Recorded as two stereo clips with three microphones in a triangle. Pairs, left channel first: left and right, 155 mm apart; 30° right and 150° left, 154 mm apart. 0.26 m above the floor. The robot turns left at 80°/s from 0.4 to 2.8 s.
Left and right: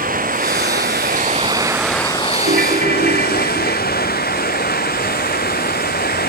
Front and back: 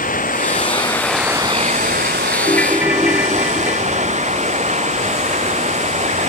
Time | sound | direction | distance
0.0 | running water | 60° right | ?
2.5 | a ringtone | 100° right | ?